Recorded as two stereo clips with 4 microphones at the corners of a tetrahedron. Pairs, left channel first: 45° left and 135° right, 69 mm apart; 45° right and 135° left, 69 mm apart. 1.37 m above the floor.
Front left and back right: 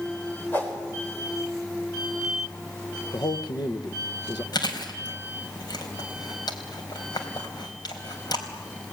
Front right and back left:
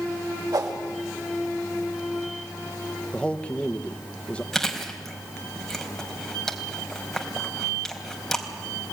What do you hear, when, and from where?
0.5 s a whoosh: 110° left, 5 m
3.1 s a man speaking: 30° left, 1.3 m
4.5 s chewing: 40° left, 3.5 m